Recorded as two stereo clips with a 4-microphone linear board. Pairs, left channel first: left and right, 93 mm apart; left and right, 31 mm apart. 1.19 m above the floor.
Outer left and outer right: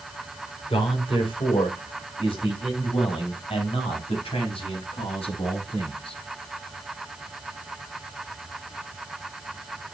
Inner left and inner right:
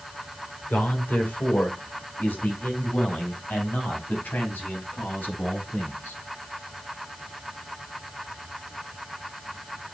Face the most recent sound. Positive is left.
turn(degrees=85)